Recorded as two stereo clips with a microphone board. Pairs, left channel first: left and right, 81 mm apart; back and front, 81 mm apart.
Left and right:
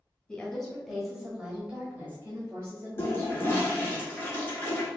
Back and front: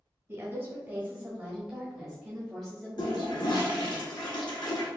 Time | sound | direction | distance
0.3 | a woman speaking | 25° left | 1.4 m
3.0 | a toilet flushing | 150° left | 1.2 m